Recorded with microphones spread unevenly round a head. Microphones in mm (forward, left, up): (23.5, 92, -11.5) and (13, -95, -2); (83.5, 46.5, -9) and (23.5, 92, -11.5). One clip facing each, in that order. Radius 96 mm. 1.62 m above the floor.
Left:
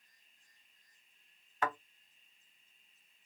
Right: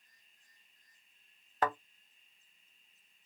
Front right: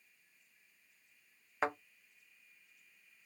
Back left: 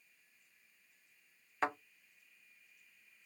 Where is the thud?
115° right, 1.1 m.